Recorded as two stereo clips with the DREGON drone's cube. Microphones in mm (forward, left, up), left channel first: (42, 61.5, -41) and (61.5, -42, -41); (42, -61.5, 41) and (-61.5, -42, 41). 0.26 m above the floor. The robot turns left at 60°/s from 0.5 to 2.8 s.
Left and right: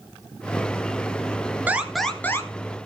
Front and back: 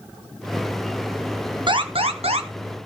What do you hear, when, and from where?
1.7 s an alarm: 150° right, 1.7 m; by 2.5 s 160° left, 1.7 m